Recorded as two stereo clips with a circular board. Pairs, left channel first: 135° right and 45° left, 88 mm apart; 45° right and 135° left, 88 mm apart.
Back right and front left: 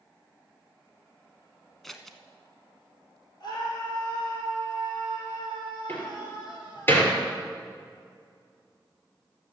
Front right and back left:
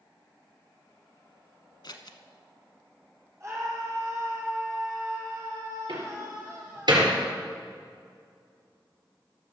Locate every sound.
1.8 s scissors: 50° right, 1.0 m
3.4 s a scream: 175° right, 6 m
5.9 s a door slam: 165° left, 3.5 m